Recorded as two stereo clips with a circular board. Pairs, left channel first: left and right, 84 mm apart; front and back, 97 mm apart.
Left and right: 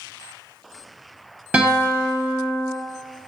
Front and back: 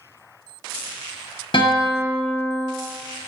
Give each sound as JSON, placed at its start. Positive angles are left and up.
{"t": 1.5, "sound": "a guitar", "azimuth_deg": -20, "distance_m": 0.7}